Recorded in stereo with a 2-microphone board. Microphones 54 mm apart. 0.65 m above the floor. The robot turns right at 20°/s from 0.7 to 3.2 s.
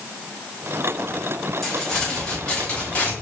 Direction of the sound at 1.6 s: Straight ahead.